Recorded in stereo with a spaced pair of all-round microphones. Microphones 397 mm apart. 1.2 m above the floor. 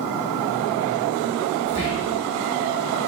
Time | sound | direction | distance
1.7 | whispering | 65° left (ahead or behind) | 1.4 m